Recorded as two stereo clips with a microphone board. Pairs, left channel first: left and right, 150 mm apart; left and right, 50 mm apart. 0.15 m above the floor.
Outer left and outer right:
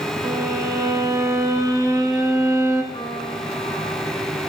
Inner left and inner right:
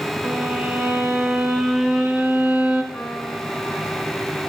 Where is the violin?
25° right (ahead or behind), 1.9 m.